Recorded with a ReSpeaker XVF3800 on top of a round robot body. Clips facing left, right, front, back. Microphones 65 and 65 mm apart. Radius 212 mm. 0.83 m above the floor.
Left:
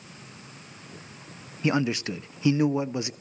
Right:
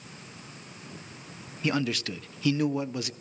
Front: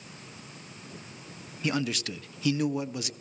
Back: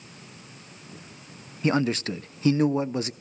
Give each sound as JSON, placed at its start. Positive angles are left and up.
{"t": 1.6, "sound": "a man speaking", "azimuth_deg": 145, "distance_m": 0.5}